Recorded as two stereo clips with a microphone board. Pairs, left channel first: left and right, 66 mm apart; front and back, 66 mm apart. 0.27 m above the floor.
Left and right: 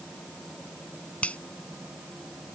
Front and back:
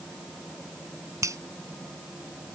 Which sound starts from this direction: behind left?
A finger snap, at 1.2 s.